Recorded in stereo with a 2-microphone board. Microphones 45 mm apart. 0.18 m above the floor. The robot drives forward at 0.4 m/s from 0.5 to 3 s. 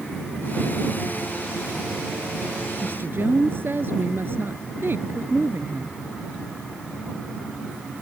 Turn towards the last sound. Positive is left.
turn(degrees=-55)  # may be behind; listen again after turning